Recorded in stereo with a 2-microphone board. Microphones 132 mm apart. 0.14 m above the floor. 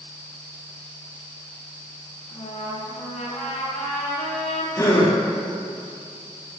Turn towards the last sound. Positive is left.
turn(degrees=25)  # may be behind; listen again after turning